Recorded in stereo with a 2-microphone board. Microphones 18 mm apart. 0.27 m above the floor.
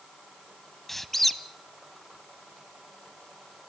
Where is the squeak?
10° left (ahead or behind), 1.0 m.